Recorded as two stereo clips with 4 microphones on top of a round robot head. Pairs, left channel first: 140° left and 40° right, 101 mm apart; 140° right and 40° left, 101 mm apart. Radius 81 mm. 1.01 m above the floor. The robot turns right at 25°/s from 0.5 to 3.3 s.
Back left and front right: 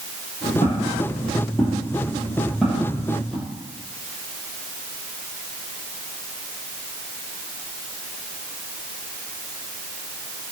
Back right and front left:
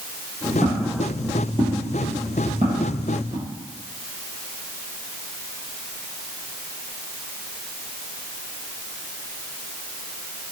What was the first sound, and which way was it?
Footsteps, 125° left.